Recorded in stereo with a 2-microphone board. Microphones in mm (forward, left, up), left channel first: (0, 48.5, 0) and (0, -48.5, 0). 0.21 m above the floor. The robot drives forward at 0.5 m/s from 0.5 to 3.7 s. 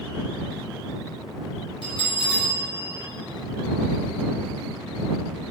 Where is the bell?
65° left (ahead or behind), 3.5 m; by 3.1 s 70° left (ahead or behind), 3.5 m.